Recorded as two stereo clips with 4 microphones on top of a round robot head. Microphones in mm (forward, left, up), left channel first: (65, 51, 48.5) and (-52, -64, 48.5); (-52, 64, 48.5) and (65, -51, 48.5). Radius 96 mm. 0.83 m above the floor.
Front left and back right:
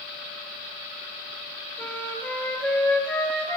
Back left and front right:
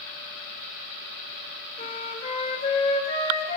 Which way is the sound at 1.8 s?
120° left.